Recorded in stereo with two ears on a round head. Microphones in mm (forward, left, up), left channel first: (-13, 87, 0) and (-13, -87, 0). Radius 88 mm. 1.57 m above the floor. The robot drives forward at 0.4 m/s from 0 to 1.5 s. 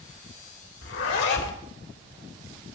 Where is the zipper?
65° left (ahead or behind), 2.5 m.